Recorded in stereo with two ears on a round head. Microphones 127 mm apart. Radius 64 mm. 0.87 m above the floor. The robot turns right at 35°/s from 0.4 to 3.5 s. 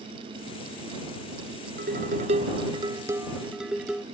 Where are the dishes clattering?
65° right; by 4.0 s 5° right.